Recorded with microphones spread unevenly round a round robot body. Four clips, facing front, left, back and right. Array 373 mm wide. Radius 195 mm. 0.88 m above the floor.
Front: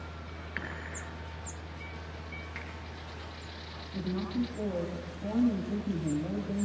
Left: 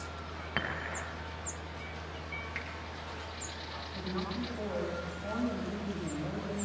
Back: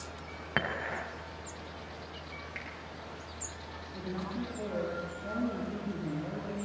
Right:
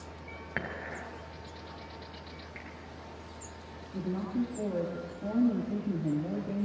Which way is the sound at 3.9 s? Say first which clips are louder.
Right 5 dB, front 5 dB; 55° right.